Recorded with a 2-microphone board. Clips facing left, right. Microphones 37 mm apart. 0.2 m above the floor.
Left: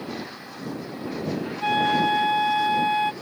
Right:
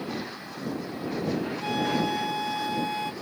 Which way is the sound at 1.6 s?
35° left (ahead or behind).